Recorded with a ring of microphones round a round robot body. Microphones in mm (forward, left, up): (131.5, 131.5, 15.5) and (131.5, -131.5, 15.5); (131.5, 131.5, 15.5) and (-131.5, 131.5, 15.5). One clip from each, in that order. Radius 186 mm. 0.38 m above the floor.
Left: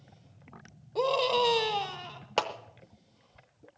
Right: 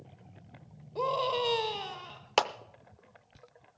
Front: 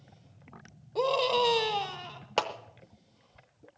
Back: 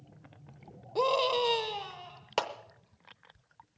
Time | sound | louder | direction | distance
0.9 | a scream | left 4 dB, front 1 dB | 135° left | 1.0 m
2.4 | a clap | right 2 dB, front 2 dB | 95° right | 0.6 m